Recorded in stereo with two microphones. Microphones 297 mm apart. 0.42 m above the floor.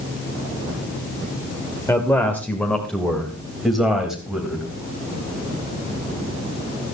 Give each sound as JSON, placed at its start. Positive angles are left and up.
{"t": 1.9, "sound": "a man speaking", "side_deg": 10, "distance_m": 1.7}